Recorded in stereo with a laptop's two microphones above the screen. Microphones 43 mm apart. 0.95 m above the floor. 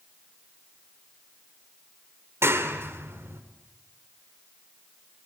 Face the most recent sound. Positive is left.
turn(degrees=-70)  # may be behind; listen again after turning